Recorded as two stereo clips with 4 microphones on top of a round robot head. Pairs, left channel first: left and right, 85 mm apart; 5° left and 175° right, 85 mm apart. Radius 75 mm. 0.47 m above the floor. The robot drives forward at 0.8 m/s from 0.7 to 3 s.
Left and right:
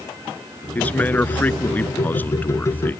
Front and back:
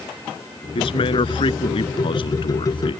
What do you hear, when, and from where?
0.8 s a man speaking: 20° left; by 3.0 s 25° left